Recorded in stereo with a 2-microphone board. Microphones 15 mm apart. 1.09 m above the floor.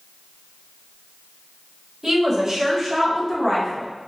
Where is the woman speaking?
30° right (ahead or behind), 1.4 m; by 3.9 s 10° left (ahead or behind), 1.3 m.